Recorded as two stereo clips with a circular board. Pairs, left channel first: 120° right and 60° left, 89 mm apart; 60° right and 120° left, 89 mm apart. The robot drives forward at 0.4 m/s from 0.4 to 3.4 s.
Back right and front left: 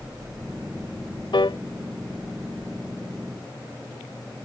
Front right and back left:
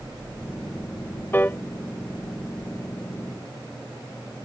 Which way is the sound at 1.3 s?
125° right.